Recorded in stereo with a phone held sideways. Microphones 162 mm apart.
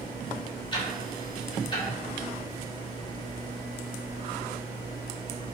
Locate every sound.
0.7 s ticking: 30° left (ahead or behind), 1.2 m